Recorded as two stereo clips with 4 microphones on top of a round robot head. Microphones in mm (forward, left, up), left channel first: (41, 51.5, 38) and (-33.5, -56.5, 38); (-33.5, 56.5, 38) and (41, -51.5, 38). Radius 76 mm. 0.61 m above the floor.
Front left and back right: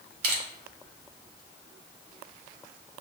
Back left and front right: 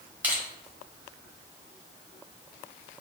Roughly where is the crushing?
Behind right.